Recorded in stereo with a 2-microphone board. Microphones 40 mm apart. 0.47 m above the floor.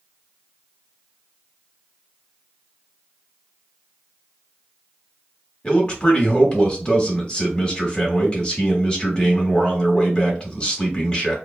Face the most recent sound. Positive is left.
turn(degrees=25)  # may be behind; listen again after turning